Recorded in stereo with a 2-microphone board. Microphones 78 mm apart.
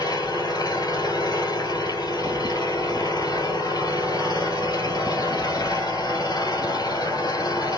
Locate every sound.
0.0 s an engine running: 50° left (ahead or behind), 1.8 m